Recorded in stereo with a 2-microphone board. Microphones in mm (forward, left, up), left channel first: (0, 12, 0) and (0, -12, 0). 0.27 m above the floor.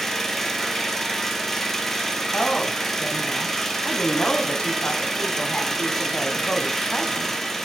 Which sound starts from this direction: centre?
An engine running, at 0.0 s.